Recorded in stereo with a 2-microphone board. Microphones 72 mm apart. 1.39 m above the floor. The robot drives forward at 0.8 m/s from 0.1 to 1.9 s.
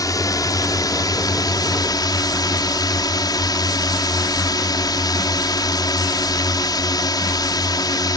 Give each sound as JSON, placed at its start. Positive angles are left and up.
{"t": 0.0, "sound": "a drone", "side_deg": 55}